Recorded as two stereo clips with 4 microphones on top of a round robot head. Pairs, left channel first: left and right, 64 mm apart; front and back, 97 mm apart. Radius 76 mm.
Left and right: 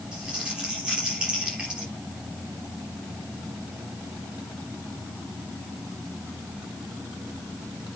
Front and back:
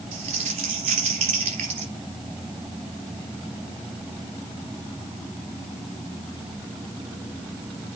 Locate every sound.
0.1 s crumpling: 170° right, 3.5 m